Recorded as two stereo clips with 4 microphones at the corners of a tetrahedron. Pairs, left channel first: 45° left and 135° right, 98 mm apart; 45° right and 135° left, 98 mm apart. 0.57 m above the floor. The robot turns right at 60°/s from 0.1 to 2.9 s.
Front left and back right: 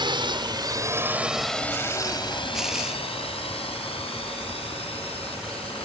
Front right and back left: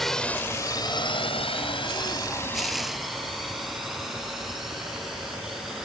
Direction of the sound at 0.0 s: 130° right.